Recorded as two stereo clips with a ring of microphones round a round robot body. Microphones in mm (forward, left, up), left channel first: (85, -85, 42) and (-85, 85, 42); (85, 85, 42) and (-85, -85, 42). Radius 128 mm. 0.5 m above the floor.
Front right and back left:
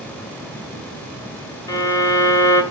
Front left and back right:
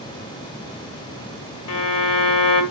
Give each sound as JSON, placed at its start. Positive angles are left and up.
{"t": 1.7, "sound": "a violin", "azimuth_deg": 30, "distance_m": 2.0}